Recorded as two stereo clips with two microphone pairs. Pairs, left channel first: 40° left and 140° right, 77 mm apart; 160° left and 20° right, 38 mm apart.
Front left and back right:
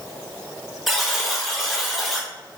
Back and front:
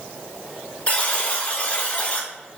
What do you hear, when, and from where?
0.9 s a buzzer: 135° left, 0.6 m